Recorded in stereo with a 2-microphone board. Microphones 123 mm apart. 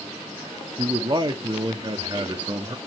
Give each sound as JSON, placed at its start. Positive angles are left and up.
{"t": 0.8, "sound": "a man speaking", "side_deg": -35, "distance_m": 0.8}